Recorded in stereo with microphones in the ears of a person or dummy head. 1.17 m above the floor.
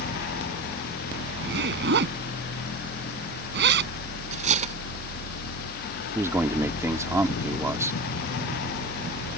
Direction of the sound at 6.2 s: 10° right (ahead or behind).